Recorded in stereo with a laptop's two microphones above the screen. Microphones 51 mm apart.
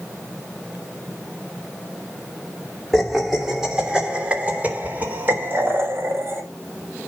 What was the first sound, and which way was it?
Laughter, 5° left (ahead or behind).